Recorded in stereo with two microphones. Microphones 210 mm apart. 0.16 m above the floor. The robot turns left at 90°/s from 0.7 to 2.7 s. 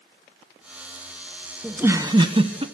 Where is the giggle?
5° right (ahead or behind), 0.9 m; by 2.6 s 25° right (ahead or behind), 0.9 m.